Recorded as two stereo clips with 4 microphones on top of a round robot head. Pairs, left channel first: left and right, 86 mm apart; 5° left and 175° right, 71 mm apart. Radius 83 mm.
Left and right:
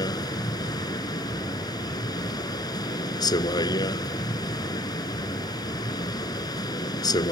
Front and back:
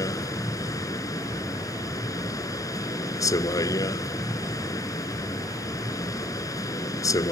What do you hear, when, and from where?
0.0 s a vehicle: 45° left